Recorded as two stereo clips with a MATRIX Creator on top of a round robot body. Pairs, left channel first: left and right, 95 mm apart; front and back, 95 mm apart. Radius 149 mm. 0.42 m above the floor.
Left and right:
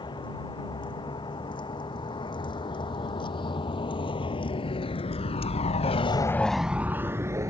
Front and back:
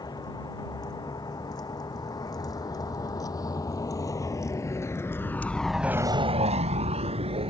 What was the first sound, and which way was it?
A vehicle, 50° left.